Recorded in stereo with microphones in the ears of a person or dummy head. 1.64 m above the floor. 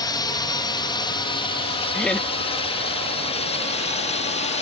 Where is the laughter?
5° left (ahead or behind).